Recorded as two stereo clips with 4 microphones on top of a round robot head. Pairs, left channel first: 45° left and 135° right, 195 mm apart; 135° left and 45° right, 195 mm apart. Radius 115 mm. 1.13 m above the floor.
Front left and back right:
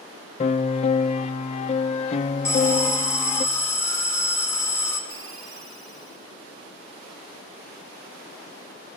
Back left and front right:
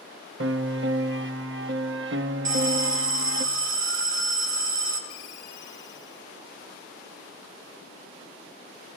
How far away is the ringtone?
About 1.2 m.